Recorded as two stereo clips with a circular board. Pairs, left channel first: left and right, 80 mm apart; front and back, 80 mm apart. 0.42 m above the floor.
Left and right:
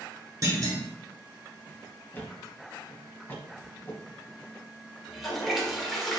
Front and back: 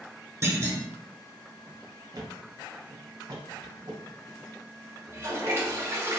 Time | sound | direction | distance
0.4 | a clunk | 130° right | 1.1 m
2.1 | a thud | 155° left | 1.0 m
5.1 | a toilet flushing | straight behind | 1.0 m